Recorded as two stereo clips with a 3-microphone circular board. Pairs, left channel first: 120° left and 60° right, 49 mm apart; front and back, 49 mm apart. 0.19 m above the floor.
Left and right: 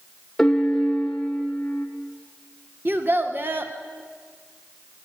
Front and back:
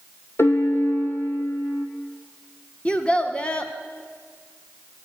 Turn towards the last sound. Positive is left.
turn(degrees=-55)